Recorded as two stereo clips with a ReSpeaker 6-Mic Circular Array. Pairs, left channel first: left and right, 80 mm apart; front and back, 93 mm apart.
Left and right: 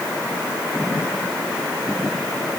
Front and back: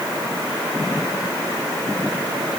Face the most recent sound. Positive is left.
No sound to turn to.